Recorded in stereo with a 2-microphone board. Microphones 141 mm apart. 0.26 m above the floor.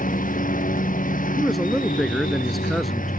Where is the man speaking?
Centre (ahead or behind).